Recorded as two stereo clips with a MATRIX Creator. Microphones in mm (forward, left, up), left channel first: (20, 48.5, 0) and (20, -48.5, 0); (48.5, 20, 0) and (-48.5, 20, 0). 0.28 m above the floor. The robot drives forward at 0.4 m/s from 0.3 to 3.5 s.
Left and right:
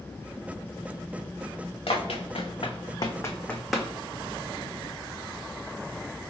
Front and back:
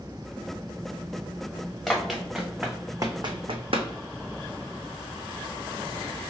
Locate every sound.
1.9 s running footsteps: 85° left, 1.3 m; by 3.9 s 165° right, 0.7 m